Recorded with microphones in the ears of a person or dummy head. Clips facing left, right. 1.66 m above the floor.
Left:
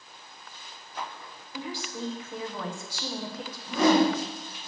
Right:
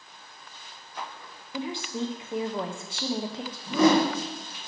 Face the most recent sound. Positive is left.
turn(degrees=-90)